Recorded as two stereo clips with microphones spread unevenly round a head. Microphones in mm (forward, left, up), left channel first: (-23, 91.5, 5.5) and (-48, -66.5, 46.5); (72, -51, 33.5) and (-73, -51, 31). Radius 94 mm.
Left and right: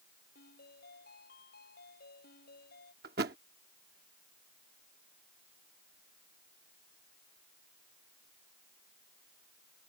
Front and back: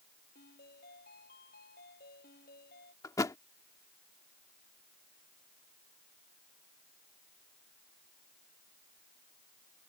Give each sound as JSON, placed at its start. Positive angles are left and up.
{"t": 0.3, "sound": "a ringtone", "azimuth_deg": 40}
{"t": 3.0, "sound": "a thud", "azimuth_deg": -65}